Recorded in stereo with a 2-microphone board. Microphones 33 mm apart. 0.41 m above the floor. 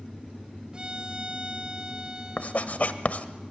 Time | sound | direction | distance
0.7 | a violin | 25° right (ahead or behind) | 0.8 m
2.4 | writing | 50° left (ahead or behind) | 1.2 m